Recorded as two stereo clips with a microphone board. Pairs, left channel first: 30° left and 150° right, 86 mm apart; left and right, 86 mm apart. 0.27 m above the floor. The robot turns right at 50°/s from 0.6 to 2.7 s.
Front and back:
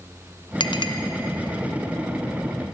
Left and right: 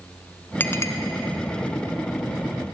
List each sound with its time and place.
0.6 s a clink: 25° left, 1.8 m; by 0.9 s 40° left, 1.8 m